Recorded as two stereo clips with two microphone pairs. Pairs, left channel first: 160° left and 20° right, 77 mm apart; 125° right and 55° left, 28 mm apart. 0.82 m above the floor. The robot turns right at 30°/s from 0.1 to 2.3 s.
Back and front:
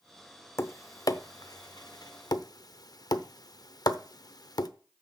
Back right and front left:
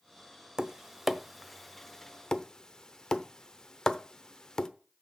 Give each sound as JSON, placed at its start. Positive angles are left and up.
{"t": 0.6, "sound": "tapping", "azimuth_deg": 120, "distance_m": 0.6}